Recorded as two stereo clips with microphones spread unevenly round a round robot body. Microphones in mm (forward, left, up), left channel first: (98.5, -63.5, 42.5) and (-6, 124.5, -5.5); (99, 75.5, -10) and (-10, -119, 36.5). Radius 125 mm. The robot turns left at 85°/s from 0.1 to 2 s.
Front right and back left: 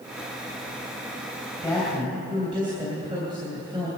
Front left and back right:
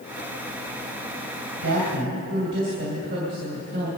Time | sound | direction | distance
1.6 | a woman speaking | 140° right | 2.5 m